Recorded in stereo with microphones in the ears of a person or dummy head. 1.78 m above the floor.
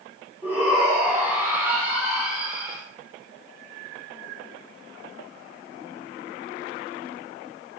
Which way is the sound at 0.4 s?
10° right (ahead or behind).